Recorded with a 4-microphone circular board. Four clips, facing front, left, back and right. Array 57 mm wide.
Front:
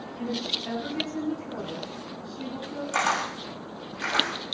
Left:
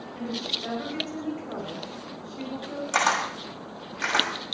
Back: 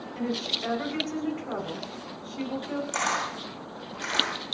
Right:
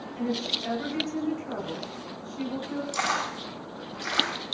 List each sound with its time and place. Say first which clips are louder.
0.1 s a woman speaking: right 2 dB, back 1 dB; 175° left, 8.5 m
2.9 s a camera shutter: left 6 dB, front 4 dB; 80° left, 7 m